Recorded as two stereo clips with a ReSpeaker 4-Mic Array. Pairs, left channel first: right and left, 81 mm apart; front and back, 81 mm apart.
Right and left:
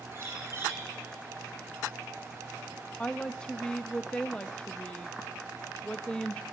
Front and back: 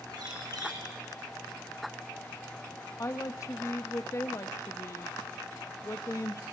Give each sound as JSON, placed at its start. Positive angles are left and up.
{"t": 0.1, "sound": "a bird", "azimuth_deg": 145, "distance_m": 7.0}
{"t": 3.0, "sound": "a woman speaking", "azimuth_deg": -20, "distance_m": 0.9}